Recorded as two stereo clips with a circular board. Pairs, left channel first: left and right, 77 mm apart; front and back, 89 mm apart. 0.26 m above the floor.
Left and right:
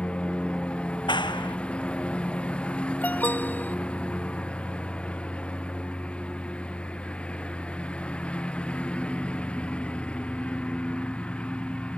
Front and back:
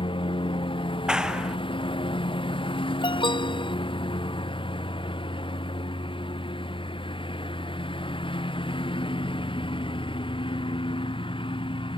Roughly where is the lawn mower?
Ahead.